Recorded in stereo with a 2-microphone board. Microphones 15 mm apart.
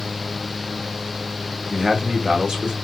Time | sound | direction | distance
1.7 | a man speaking | 75° right (ahead or behind) | 1.0 m